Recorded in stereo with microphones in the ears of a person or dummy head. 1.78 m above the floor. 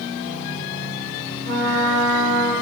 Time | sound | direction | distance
1.4 | a trumpet | 50° right (ahead or behind) | 1.5 m